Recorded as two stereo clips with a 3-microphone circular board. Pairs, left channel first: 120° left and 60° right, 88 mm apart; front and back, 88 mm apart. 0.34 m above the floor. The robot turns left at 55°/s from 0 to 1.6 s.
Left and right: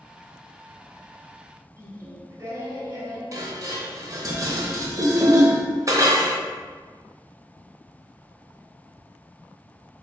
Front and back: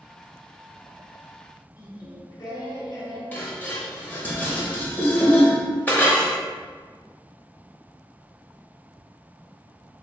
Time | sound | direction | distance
1.8 | singing | 10° right | 1.0 m
3.3 | dishes clattering | 60° right | 0.8 m